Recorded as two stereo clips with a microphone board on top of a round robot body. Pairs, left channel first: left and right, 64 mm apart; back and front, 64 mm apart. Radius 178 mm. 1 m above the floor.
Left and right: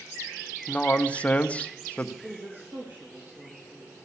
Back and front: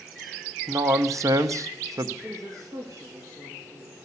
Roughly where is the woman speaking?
Ahead right.